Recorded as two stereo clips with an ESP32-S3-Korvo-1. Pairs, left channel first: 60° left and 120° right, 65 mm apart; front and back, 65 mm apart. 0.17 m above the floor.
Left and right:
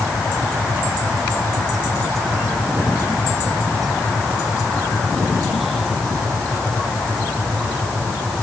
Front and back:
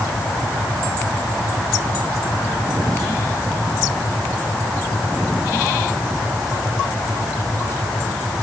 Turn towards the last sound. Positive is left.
No sound to turn to.